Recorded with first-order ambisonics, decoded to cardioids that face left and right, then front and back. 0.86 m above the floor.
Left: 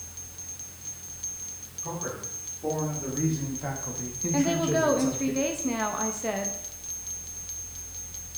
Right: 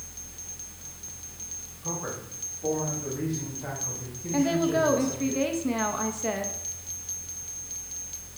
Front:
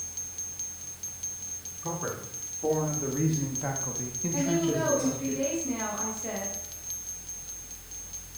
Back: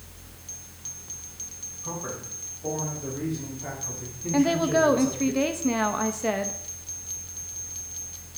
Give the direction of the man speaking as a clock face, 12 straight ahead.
12 o'clock.